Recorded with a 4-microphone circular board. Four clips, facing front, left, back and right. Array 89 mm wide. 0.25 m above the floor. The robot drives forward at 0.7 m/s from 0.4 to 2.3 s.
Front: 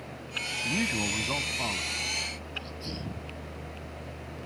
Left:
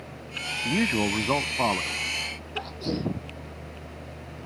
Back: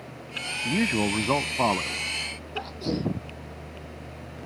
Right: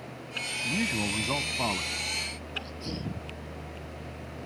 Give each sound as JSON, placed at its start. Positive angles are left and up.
{"t": 0.7, "sound": "a man speaking", "azimuth_deg": 120}
{"t": 2.5, "sound": "a sneeze", "azimuth_deg": 140}